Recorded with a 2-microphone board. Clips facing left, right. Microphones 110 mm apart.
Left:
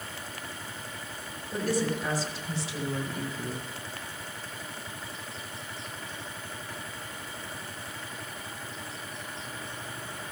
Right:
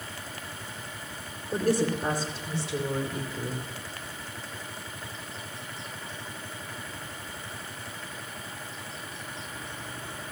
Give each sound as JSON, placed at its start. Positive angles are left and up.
{"t": 1.5, "sound": "a woman speaking", "side_deg": -50, "distance_m": 3.0}